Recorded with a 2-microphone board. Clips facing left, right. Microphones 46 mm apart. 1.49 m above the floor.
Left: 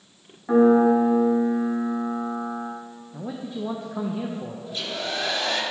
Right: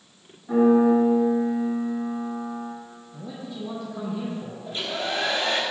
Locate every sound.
0.5 s a piano: 55° left (ahead or behind), 2 m
3.1 s a man speaking: 35° left (ahead or behind), 0.6 m
4.7 s a hair dryer: 30° right (ahead or behind), 1.0 m